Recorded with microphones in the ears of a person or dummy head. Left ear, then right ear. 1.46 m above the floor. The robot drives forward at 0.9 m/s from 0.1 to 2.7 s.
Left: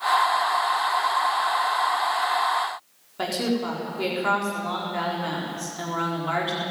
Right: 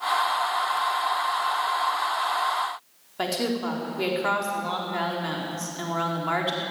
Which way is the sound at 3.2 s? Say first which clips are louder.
Left 1 dB; 10° right (ahead or behind).